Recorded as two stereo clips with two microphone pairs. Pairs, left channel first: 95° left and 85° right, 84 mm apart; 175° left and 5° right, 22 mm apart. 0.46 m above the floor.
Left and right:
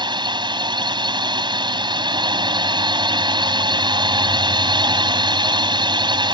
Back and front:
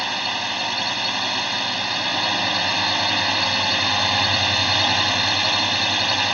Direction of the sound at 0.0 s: 90° right.